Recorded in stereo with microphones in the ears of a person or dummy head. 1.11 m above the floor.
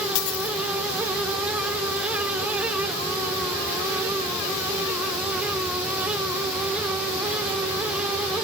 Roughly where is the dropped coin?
Left.